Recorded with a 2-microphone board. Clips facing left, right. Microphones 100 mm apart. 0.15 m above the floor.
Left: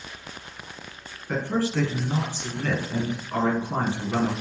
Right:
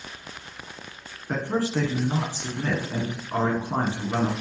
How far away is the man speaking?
About 1.0 m.